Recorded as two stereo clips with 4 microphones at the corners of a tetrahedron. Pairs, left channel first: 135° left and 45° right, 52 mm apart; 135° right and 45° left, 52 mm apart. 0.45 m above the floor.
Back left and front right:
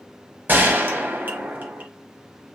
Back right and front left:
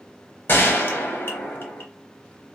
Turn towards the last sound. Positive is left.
turn(degrees=-95)